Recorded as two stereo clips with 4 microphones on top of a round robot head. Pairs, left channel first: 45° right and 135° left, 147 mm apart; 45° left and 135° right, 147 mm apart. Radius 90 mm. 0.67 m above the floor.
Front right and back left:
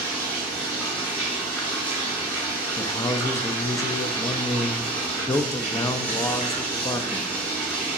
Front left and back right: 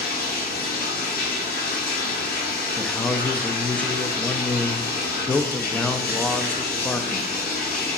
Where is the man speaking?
20° right, 0.5 m.